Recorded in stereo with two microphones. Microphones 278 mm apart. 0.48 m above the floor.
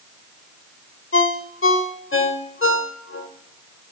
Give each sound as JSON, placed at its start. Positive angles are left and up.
{"t": 1.1, "sound": "a ringtone", "side_deg": 50, "distance_m": 0.6}